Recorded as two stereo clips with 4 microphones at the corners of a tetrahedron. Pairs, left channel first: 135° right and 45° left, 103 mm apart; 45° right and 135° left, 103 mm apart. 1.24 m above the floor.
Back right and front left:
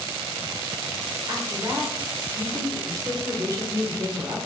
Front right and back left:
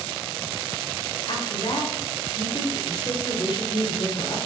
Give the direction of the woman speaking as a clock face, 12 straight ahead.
12 o'clock.